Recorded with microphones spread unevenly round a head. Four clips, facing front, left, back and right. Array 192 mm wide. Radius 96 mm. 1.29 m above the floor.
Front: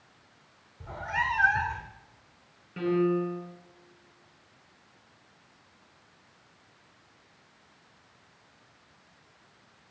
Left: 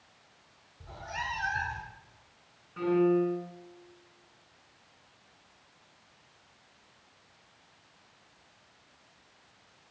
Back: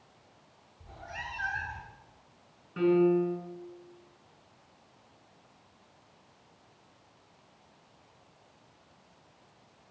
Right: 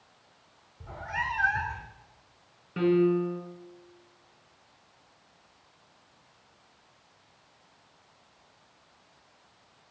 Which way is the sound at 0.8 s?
25° right.